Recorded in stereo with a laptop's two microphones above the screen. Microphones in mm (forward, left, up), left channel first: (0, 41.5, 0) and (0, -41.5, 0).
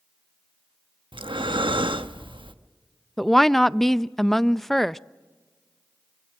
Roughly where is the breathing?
Right.